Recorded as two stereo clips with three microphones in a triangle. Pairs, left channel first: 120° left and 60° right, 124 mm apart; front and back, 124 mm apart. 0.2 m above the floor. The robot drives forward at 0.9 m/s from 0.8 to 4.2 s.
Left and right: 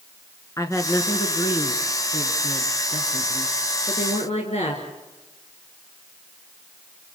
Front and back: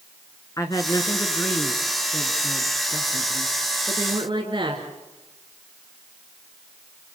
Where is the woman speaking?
60° left, 2.5 m; by 4.9 s 135° left, 3 m.